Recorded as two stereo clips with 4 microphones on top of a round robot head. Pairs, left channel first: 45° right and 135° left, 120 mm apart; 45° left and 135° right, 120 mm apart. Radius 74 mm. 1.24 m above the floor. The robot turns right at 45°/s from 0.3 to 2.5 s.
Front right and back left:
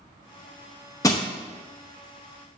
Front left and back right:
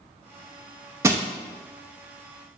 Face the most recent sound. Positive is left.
turn(degrees=-20)